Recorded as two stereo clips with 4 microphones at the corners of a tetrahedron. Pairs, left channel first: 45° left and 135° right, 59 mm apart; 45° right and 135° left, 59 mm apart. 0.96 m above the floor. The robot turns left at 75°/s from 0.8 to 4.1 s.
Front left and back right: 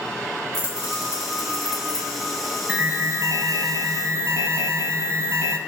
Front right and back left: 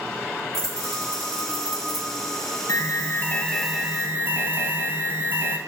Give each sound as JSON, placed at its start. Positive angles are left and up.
{"t": 0.5, "sound": "keys jangling", "azimuth_deg": -125, "distance_m": 1.5}
{"t": 2.7, "sound": "an alarm", "azimuth_deg": -65, "distance_m": 0.5}